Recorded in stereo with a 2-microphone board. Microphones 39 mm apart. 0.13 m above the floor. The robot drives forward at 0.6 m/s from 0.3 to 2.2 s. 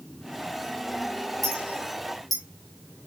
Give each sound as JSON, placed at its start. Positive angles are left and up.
{"t": 1.4, "sound": "a clink", "side_deg": 0, "distance_m": 3.5}